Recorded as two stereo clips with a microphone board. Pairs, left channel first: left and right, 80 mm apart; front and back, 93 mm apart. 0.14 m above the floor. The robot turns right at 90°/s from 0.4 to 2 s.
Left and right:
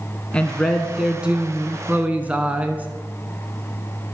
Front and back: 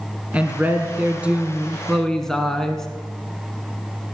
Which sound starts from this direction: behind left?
A woman speaking, at 0.3 s.